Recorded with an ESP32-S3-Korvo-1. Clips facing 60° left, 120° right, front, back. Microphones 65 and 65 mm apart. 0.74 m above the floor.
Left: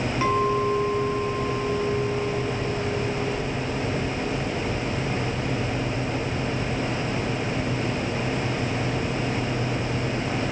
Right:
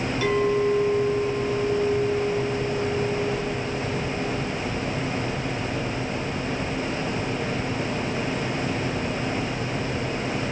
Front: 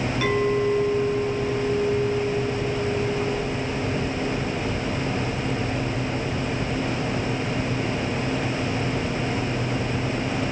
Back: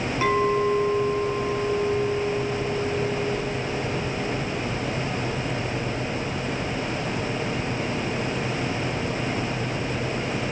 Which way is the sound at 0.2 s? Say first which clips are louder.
Right 1 dB, back 1 dB; 105° left.